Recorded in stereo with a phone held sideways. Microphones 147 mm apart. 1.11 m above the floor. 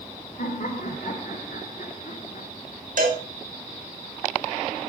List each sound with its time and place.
0.4 s laughter: 65° left (ahead or behind), 4 m; by 2.5 s 60° left (ahead or behind), 3 m
3.0 s a cowbell: 65° right (ahead or behind), 3.5 m